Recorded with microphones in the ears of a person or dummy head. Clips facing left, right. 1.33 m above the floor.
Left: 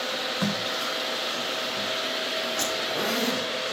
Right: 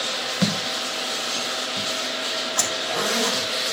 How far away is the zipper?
About 6 m.